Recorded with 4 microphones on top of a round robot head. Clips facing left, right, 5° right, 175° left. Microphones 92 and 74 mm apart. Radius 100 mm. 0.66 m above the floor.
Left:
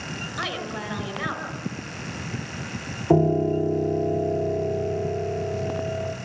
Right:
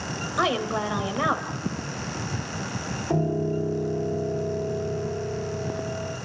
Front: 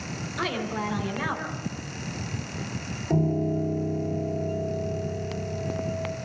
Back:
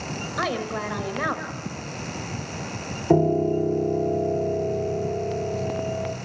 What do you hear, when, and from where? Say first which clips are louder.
0.4 s a woman speaking: right 8 dB, back 2 dB; 135° right, 4.5 m
3.1 s a piano: left 6 dB, back 6 dB; 140° left, 2 m